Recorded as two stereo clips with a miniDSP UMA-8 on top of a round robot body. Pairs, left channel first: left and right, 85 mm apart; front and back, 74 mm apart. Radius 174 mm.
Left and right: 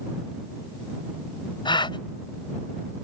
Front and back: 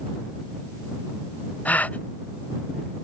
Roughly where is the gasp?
Left.